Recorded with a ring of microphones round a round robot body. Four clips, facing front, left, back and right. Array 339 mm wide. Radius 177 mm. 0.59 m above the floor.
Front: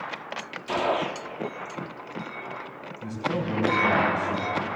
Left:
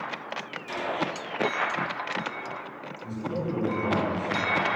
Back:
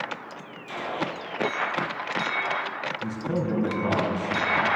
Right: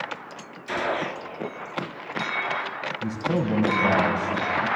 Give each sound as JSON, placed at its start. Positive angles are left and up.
{"t": 0.7, "sound": "a gunshot", "azimuth_deg": -25, "distance_m": 1.2}
{"t": 3.0, "sound": "a man speaking", "azimuth_deg": -105, "distance_m": 4.5}